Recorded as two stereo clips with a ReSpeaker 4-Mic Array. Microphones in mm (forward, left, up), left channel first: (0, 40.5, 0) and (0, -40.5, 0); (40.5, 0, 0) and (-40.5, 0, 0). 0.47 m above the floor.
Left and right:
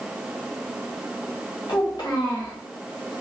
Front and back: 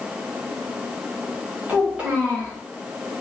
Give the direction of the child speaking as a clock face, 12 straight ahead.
8 o'clock.